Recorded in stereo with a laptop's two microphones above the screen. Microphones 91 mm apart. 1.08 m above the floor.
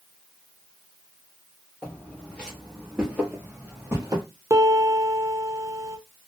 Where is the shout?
No shout in this recording.